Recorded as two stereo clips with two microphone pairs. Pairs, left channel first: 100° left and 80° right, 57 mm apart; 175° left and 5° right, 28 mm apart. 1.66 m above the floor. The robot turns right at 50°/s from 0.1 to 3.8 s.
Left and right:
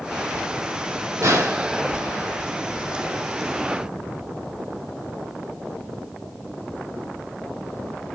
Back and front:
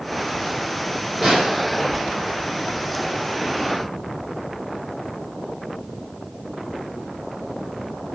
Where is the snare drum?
95° right, 4.5 m; by 1.7 s 70° right, 4.5 m.